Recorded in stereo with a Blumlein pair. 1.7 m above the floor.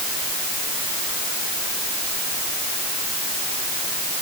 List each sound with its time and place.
Only background noise.